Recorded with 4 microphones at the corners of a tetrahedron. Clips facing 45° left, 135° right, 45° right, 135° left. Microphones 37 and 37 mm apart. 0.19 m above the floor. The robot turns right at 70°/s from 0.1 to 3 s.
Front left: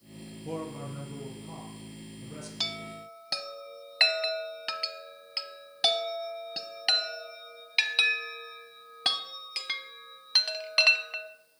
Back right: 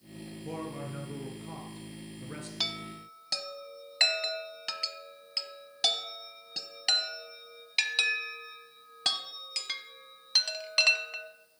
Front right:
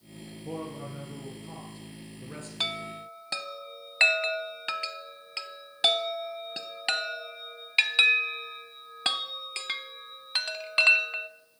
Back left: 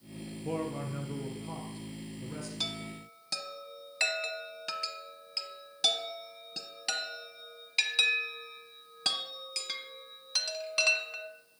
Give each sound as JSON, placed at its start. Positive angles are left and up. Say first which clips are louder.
{"t": 0.5, "sound": "a man speaking", "louder": "front left 2 dB, back left 2 dB", "azimuth_deg": 135, "distance_m": 3.0}
{"t": 2.6, "sound": "a chime", "louder": "front left 1 dB, front right 8 dB", "azimuth_deg": -45, "distance_m": 0.6}